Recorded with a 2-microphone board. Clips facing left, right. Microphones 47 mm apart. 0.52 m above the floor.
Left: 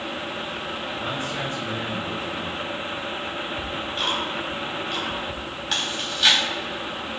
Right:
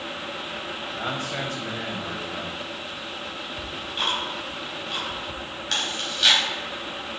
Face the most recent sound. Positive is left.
turn(degrees=5)  # may be behind; listen again after turning